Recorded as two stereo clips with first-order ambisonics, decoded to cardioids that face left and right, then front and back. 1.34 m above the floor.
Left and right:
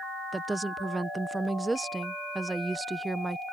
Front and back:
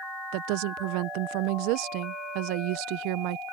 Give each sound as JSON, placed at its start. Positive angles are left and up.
{"t": 0.3, "sound": "a woman speaking", "azimuth_deg": -170}